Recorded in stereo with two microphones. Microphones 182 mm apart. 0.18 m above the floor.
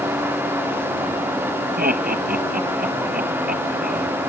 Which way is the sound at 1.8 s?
55° right (ahead or behind).